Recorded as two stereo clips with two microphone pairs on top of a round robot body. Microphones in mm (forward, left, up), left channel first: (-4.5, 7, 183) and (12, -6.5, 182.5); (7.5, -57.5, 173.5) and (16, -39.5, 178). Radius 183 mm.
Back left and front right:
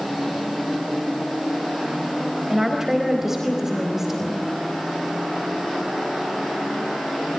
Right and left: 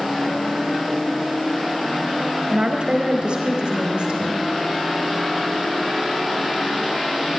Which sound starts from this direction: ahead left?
A woman speaking, at 2.5 s.